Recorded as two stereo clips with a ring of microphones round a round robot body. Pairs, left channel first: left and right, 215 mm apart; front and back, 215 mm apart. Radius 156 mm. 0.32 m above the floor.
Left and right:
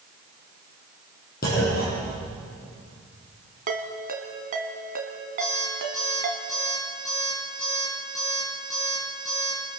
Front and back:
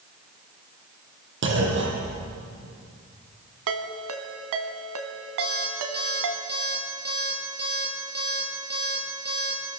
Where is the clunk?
150° left, 6 m.